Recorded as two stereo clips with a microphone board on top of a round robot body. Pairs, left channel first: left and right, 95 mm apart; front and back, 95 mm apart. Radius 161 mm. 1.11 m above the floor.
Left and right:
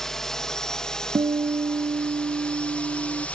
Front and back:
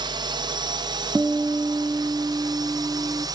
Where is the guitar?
110° right.